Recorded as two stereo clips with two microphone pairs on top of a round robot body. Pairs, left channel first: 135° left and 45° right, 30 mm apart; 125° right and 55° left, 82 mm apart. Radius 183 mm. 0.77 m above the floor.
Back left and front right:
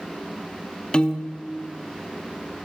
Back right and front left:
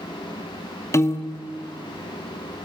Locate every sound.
0.9 s a piano: 165° right, 1.9 m